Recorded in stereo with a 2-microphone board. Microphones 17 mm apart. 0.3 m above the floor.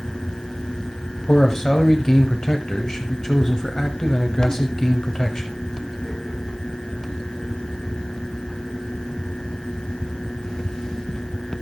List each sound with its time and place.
1.3 s a man speaking: 35° left (ahead or behind), 1.1 m